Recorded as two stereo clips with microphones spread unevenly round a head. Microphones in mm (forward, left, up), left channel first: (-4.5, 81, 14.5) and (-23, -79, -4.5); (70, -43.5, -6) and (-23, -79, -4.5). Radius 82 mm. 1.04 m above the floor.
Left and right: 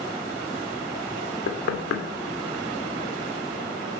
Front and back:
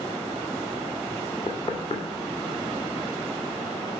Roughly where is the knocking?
Left.